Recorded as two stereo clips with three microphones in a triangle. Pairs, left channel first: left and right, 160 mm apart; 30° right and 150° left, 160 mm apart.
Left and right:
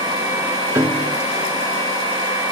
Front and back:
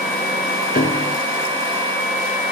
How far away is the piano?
About 1.0 m.